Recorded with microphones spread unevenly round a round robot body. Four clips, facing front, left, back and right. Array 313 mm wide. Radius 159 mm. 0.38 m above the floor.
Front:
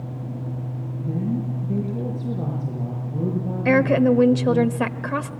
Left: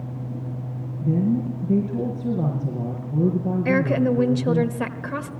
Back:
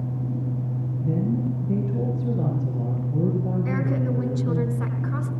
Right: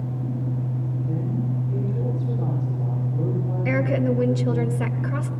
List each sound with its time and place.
1.0 s a woman speaking: 105° left, 6.5 m
3.6 s a woman speaking: 20° left, 1.4 m